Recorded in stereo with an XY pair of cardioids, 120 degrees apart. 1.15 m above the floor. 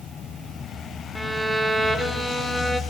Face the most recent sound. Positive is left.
turn(degrees=-5)